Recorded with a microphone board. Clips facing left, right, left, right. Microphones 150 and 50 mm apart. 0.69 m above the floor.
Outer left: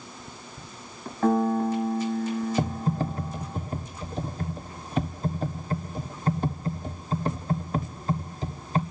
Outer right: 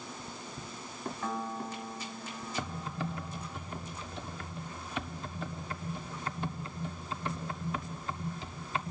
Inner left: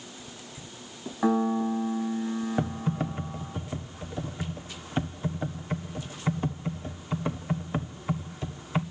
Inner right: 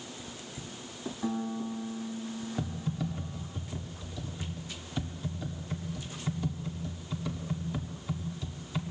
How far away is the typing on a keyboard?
About 1.5 m.